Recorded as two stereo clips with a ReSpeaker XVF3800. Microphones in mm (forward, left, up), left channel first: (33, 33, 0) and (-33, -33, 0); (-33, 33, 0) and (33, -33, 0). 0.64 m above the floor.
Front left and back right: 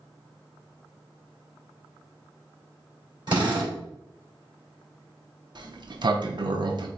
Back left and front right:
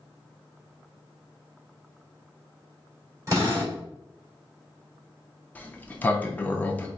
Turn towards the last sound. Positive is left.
turn(degrees=-155)